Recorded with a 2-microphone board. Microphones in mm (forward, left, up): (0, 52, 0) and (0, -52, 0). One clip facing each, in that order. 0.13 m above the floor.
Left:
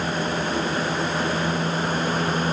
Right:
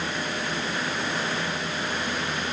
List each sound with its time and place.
Only background noise.